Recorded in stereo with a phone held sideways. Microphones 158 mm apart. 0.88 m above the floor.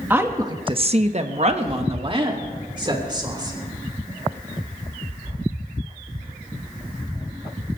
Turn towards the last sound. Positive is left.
turn(degrees=-25)  # may be behind; listen again after turning